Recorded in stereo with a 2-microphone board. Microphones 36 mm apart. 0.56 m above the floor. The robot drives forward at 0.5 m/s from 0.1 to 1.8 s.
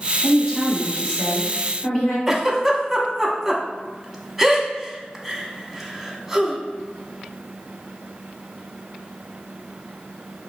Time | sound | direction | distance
0.2 | a woman speaking | 20° left (ahead or behind) | 1.3 m
2.3 | a giggle | 10° right (ahead or behind) | 0.6 m